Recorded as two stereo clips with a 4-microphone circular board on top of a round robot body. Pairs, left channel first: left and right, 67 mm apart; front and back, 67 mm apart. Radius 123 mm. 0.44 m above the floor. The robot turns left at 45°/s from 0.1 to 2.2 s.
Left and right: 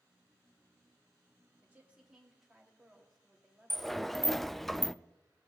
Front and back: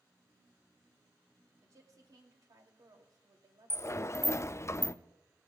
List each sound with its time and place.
1.6 s a woman speaking: 150° right, 3 m; by 4.5 s 175° right, 3 m
3.7 s a sliding door: 5° left, 0.5 m